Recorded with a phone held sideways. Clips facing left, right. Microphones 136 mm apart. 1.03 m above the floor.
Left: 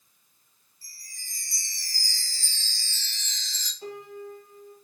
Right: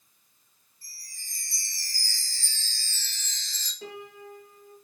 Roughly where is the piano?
Right.